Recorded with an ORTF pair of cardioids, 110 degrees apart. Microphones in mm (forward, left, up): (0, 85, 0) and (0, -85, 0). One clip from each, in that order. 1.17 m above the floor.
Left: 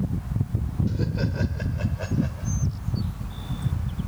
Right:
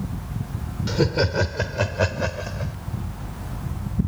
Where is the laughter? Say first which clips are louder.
Right 12 dB; 65° right; by 2.7 s 75° right.